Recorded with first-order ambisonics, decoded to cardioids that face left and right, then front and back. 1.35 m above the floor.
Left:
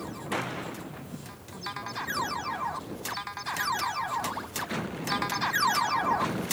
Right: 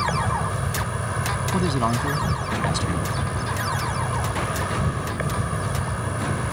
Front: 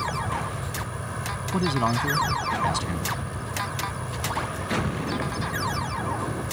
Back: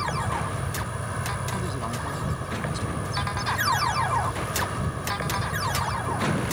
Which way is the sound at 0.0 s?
95° right.